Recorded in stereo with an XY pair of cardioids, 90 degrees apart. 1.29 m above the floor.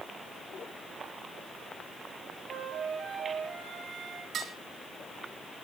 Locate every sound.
2.5 s a flute: 70° right, 8 m
4.3 s dishes clattering: 65° right, 8 m